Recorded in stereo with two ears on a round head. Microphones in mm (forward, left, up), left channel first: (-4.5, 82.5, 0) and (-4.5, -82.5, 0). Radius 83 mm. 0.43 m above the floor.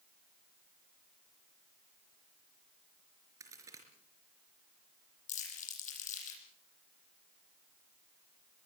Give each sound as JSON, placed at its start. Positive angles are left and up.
{"t": 3.4, "sound": "a crack", "side_deg": -20, "distance_m": 4.5}
{"t": 5.3, "sound": "crumpling", "side_deg": 40, "distance_m": 8.5}